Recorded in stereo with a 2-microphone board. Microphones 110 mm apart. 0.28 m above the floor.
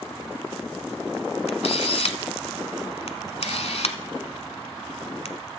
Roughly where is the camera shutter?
Left.